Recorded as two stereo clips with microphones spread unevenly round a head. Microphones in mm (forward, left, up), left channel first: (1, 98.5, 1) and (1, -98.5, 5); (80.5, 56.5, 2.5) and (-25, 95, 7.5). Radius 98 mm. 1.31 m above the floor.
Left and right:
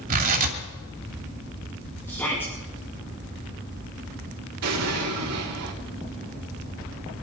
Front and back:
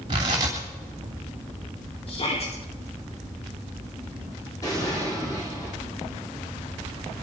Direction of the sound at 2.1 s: 10° left.